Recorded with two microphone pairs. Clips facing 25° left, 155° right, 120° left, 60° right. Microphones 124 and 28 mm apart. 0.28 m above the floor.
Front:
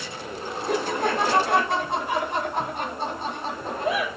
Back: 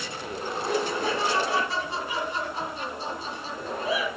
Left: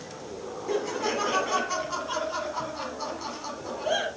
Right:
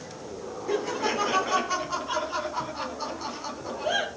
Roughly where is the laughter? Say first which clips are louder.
Front 3 dB, right 1 dB; ahead.